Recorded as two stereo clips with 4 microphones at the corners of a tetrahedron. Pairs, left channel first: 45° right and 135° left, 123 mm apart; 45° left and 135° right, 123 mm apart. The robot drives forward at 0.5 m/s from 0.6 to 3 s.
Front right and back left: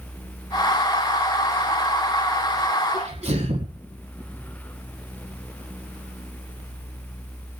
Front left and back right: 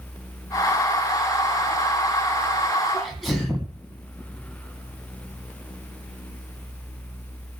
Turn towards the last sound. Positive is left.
turn(degrees=135)